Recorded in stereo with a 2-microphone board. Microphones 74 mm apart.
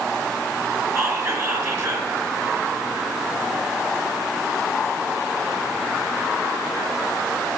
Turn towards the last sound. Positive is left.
turn(degrees=-30)  # may be behind; listen again after turning